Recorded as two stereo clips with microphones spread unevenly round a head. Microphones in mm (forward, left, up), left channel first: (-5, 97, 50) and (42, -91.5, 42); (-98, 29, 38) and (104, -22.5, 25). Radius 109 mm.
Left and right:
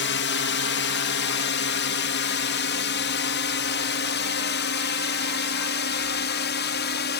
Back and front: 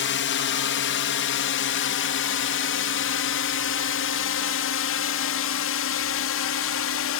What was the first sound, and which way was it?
A drone, 135° left.